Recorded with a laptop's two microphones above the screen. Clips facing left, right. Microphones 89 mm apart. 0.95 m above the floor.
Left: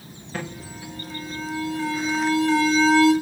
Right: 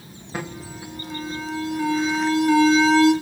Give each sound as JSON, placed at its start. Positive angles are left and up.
{"t": 0.3, "sound": "an alarm", "side_deg": -20, "distance_m": 1.6}